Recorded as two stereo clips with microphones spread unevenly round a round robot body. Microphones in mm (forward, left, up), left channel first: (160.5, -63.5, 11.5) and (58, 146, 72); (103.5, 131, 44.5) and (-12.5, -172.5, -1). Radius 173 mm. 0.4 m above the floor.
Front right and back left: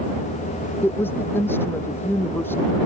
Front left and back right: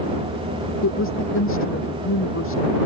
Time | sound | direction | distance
0.8 | a woman speaking | 20° left | ?